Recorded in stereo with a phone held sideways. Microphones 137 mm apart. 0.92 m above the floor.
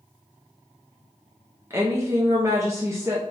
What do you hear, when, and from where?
1.7 s a woman speaking: 20° right (ahead or behind), 0.5 m